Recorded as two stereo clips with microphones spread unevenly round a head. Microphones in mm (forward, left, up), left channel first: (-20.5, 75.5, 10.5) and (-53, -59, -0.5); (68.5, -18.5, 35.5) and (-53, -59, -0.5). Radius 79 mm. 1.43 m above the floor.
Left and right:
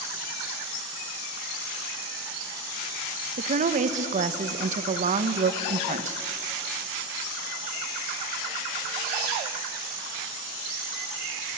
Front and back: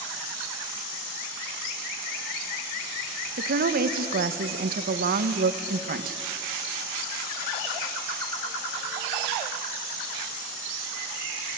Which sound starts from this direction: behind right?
A woman speaking, at 3.4 s.